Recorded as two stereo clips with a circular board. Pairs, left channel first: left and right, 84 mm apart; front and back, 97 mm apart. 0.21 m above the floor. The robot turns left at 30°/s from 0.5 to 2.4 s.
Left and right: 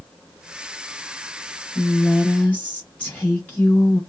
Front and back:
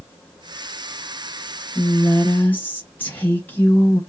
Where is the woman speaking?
65° left, 1.1 m; by 4.0 s 45° left, 1.1 m.